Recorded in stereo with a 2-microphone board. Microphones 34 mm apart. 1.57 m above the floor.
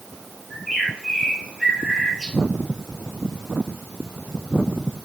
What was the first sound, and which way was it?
A bird, 5° left (ahead or behind).